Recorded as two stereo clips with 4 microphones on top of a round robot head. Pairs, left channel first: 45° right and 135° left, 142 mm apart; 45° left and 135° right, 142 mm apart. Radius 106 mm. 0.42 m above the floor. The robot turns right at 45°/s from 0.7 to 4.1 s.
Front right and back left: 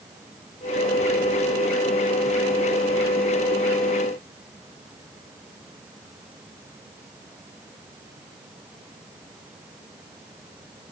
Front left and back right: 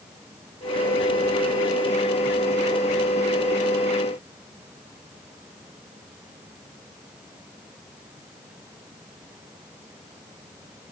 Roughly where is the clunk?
No clunk in this recording.